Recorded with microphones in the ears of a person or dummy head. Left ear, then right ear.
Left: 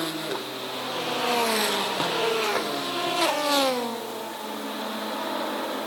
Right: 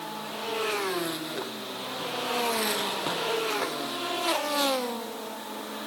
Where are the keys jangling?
No keys jangling in this recording.